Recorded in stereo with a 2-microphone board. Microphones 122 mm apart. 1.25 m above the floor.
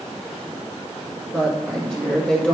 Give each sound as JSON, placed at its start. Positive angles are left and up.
{"t": 1.3, "sound": "a woman speaking", "side_deg": 5, "distance_m": 2.0}